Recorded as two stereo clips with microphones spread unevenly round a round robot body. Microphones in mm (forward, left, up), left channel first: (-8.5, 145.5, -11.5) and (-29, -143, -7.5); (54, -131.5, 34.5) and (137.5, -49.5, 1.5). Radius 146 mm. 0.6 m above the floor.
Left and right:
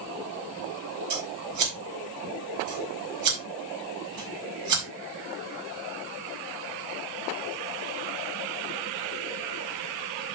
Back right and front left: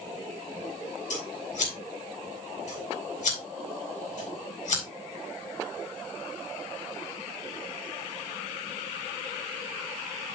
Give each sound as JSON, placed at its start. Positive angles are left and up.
{"t": 1.1, "sound": "scissors", "azimuth_deg": -125, "distance_m": 4.5}